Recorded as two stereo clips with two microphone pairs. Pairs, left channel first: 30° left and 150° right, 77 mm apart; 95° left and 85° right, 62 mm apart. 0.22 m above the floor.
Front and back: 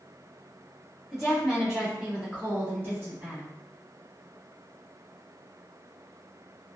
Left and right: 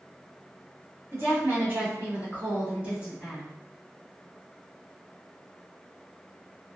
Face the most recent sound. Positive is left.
turn(degrees=-150)